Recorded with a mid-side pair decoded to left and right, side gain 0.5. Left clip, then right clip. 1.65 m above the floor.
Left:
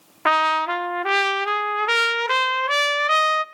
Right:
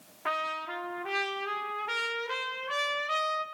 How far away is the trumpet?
About 0.7 m.